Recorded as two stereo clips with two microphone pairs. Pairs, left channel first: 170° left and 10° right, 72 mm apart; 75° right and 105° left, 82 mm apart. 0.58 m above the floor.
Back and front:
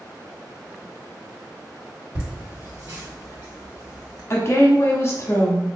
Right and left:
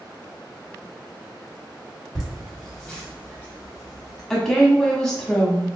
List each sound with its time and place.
2.1 s laughter: 30° left, 1.8 m; by 4.2 s 55° right, 1.7 m
4.3 s a woman speaking: 150° right, 1.0 m